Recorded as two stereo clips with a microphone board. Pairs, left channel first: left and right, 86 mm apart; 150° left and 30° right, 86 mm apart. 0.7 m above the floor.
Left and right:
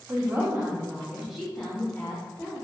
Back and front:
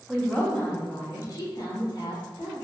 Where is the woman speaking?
125° right, 0.7 m; by 2.5 s 160° left, 1.4 m.